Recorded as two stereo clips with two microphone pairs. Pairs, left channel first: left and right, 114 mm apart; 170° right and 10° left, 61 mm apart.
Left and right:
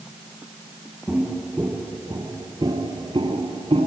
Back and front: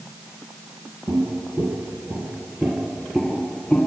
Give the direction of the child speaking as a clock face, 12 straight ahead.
No child speaking in this recording.